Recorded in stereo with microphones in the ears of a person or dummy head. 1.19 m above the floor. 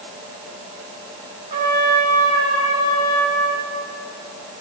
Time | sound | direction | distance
1.5 | a trumpet | 30° right (ahead or behind) | 2.5 m